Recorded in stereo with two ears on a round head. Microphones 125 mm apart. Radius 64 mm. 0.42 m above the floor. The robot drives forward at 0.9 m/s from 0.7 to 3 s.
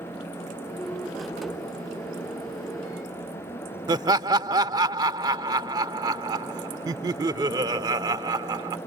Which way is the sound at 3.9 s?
30° right (ahead or behind).